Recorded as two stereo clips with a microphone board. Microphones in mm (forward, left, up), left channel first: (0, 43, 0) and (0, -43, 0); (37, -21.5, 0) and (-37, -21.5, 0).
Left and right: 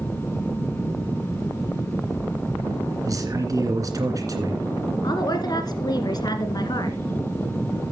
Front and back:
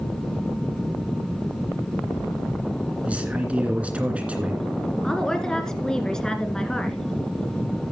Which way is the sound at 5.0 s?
80° left.